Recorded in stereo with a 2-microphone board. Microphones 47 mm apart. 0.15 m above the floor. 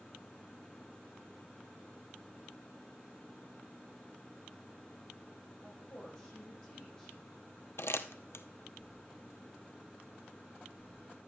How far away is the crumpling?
About 0.9 m.